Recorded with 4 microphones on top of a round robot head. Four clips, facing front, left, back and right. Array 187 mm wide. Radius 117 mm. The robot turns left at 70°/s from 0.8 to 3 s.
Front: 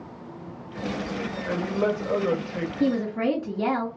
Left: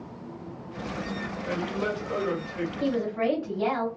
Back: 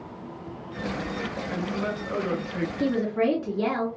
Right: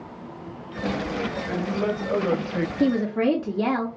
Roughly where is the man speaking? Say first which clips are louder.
Right 1 dB, front 7 dB; ahead.